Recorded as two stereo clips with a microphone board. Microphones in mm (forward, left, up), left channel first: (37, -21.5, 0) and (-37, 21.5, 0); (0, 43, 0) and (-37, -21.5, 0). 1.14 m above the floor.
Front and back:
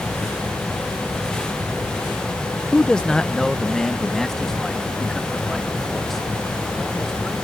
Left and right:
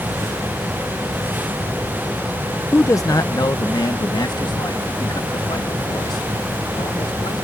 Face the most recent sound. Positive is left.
turn(degrees=60)